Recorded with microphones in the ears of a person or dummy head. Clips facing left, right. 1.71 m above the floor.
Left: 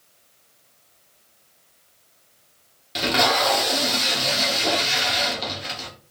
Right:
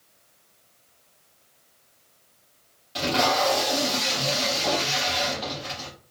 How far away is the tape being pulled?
About 1.2 m.